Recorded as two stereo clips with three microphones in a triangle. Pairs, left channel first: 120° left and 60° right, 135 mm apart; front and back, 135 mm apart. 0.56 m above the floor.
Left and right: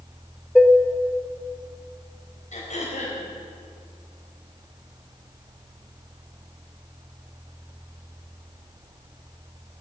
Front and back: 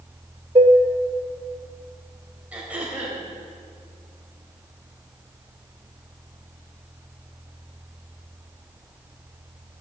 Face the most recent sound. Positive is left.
turn(degrees=100)